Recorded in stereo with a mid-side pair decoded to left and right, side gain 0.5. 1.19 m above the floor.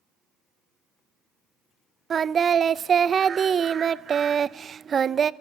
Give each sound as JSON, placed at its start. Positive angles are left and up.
{"t": 2.1, "sound": "singing", "azimuth_deg": -40, "distance_m": 0.7}